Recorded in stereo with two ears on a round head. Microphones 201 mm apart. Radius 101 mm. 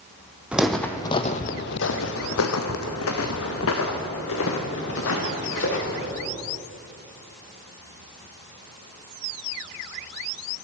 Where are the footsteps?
5° right (ahead or behind), 1.1 m; by 6.1 s 60° left (ahead or behind), 4 m.